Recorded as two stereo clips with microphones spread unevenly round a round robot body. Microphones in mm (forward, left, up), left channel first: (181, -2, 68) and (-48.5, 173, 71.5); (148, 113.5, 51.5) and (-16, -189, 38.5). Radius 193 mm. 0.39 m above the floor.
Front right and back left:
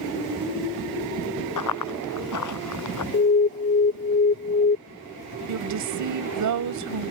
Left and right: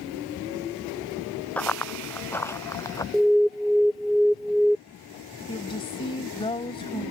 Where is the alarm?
30° right.